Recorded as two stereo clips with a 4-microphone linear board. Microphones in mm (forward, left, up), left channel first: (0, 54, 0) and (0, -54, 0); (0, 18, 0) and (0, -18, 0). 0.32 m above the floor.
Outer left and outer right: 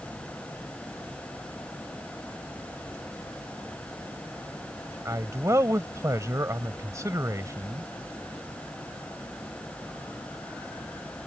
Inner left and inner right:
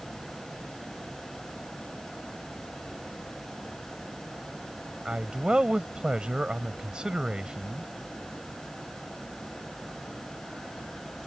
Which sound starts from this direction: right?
A man speaking, at 5.0 s.